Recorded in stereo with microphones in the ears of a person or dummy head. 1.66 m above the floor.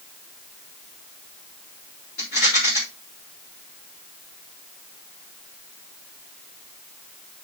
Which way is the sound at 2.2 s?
50° left (ahead or behind).